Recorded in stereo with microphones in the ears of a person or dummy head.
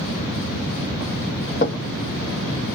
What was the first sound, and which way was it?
Knocking, 40° left (ahead or behind).